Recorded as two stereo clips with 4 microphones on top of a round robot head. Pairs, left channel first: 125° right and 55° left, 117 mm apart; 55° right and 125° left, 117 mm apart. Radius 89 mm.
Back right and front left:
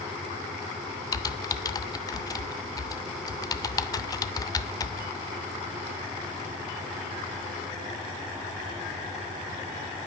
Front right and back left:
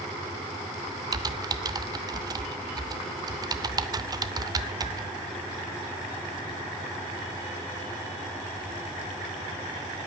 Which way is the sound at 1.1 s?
Straight behind.